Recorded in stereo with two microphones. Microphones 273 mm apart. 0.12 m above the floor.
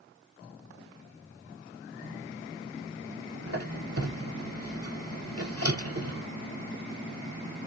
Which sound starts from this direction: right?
A squeak, at 3.5 s.